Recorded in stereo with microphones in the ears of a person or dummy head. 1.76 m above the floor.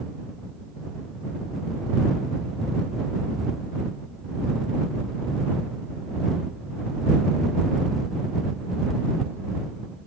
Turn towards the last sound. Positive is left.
No sound to turn to.